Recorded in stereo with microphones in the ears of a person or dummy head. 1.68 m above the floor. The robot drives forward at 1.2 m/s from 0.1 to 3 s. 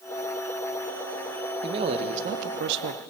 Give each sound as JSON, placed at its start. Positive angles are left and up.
{"t": 1.6, "sound": "a man speaking", "side_deg": -30, "distance_m": 1.8}